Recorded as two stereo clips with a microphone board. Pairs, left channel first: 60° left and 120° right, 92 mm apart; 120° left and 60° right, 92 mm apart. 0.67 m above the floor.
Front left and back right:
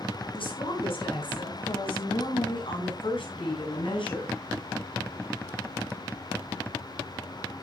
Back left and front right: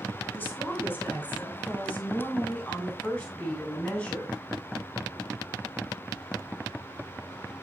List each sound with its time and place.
0.3 s a woman speaking: 50° left, 5 m; by 4.3 s 40° left, 7.5 m